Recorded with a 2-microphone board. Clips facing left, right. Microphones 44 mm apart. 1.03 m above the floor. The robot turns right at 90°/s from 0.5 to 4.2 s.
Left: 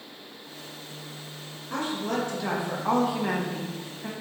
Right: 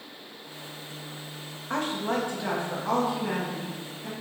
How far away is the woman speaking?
About 1.5 m.